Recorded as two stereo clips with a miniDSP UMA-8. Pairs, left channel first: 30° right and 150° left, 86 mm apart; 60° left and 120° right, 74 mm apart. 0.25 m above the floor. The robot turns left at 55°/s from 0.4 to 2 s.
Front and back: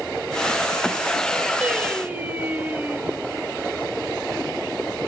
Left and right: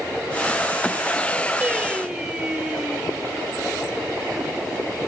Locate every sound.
1.6 s singing: 160° right, 1.0 m; by 3.1 s straight behind, 1.0 m